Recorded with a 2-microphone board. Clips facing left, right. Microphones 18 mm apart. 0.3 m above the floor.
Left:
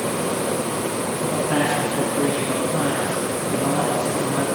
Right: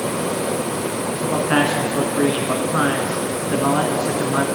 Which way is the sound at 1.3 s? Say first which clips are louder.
Right 4 dB; 60° right (ahead or behind).